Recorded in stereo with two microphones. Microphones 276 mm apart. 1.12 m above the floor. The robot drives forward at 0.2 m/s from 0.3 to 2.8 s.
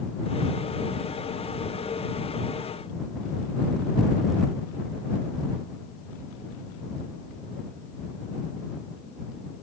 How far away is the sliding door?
No sliding door in this recording.